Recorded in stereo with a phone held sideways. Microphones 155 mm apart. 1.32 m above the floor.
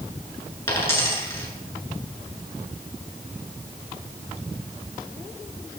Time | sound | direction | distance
0.7 | a dropped coin | 15° left (ahead or behind) | 8 m